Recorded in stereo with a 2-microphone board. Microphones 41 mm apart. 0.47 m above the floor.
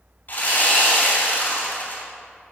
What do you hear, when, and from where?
0.3 s sawing: 50° left (ahead or behind), 2.5 m